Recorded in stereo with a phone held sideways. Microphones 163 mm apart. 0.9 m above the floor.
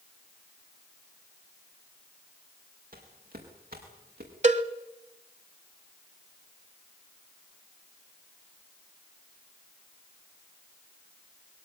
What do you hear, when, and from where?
2.9 s footsteps: 60° right (ahead or behind), 6 m; by 4.3 s 65° right (ahead or behind), 6.5 m
4.4 s a cowbell: 45° right (ahead or behind), 1.0 m